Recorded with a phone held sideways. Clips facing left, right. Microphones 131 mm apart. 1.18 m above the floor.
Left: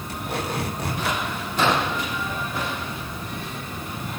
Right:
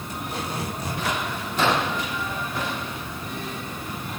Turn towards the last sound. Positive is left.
turn(degrees=80)